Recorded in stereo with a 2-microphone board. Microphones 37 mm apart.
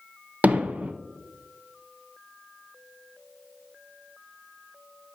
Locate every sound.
0.4 s hammering: 45° right (ahead or behind), 0.6 m